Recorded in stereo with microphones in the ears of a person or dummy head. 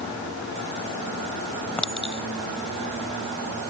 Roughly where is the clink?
Centre.